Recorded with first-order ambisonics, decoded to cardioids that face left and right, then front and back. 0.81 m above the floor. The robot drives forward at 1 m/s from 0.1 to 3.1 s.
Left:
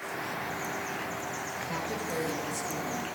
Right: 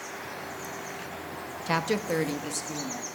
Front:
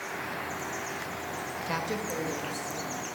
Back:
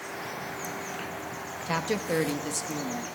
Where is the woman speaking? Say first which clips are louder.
Right 10 dB, back 5 dB; 100° right, 0.8 m; by 3.0 s 160° right, 1.7 m.